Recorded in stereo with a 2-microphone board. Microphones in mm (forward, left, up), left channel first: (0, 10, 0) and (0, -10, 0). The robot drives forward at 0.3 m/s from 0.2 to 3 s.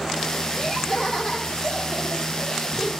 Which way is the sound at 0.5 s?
45° left (ahead or behind).